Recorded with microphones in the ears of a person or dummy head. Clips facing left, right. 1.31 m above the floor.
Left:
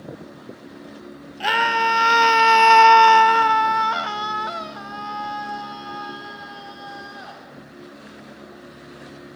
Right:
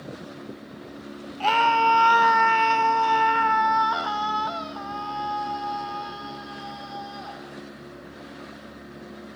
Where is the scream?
15° left (ahead or behind), 1.2 m.